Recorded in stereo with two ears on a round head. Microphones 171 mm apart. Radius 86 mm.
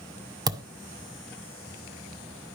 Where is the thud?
20° right (ahead or behind), 0.9 m.